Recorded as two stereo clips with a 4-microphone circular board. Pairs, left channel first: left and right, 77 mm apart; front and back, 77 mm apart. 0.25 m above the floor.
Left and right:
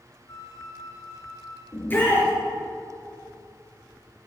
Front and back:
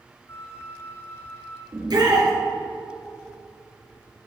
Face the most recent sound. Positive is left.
turn(degrees=155)